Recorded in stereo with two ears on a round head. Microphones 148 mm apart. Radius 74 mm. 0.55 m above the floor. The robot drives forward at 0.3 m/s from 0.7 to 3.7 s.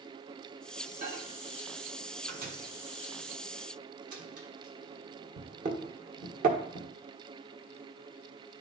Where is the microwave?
45° right (ahead or behind), 1.4 m; by 6.9 s 50° right (ahead or behind), 1.3 m.